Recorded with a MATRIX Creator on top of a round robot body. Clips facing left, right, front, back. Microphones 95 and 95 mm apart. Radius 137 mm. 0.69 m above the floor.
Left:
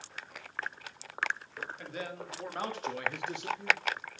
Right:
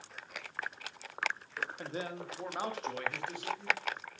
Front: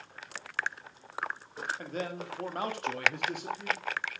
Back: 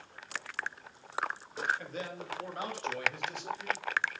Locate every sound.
1.8 s a man speaking: 40° right, 2.5 m; by 3.8 s 40° left, 2.5 m